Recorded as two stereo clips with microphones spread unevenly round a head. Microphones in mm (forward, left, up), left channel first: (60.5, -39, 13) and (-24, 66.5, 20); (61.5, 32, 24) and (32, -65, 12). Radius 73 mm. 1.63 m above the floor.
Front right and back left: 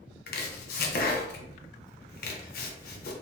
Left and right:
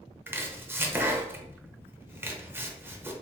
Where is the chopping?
40° right, 0.5 m.